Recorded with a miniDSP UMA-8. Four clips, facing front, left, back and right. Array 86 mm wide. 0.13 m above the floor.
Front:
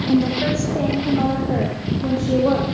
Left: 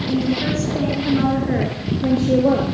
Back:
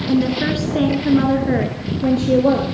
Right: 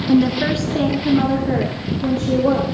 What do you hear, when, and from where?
0.1 s a woman speaking: 110° right, 1.4 m; by 2.6 s 155° left, 2 m